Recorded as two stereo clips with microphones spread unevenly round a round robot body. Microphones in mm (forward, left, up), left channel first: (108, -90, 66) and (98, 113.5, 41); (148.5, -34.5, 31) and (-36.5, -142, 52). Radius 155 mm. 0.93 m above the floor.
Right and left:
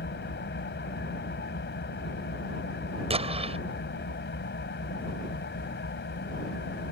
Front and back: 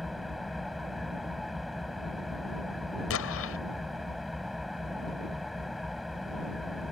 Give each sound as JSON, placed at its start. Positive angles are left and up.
{"t": 0.0, "sound": "an engine running", "azimuth_deg": -60}
{"t": 3.1, "sound": "an explosion", "azimuth_deg": 35}